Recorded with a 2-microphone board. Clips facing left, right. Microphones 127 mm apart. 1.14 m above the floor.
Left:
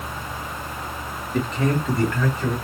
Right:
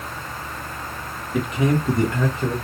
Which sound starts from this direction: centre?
A man speaking, at 1.3 s.